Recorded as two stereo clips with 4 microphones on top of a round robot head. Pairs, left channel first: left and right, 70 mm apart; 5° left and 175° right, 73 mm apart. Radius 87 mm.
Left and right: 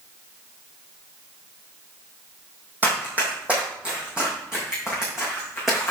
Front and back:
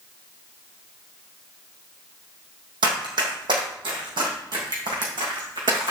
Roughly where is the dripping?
No dripping in this recording.